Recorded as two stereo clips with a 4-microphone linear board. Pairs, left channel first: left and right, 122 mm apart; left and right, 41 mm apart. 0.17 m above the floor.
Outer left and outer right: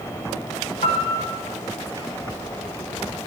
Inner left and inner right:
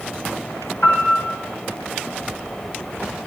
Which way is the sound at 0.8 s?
60° left (ahead or behind).